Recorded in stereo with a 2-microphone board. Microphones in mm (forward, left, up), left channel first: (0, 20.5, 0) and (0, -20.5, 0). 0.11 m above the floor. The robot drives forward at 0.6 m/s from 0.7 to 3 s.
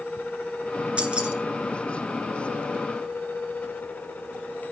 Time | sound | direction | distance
1.0 | keys jangling | 30° right (ahead or behind) | 1.2 m